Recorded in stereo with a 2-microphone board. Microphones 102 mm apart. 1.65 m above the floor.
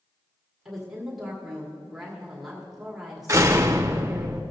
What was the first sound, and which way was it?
A woman speaking, centre (ahead or behind).